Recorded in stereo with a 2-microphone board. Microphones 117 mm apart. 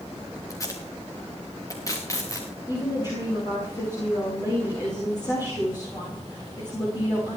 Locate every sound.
0.5 s tape being pulled: 30° left (ahead or behind), 3.5 m
2.7 s a woman speaking: 35° left (ahead or behind), 7.5 m